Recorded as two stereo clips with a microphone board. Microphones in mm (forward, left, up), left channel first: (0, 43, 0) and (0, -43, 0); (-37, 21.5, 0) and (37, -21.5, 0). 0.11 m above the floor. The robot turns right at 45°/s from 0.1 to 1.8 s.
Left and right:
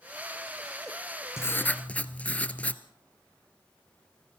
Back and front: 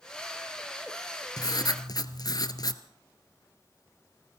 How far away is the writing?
About 1.4 m.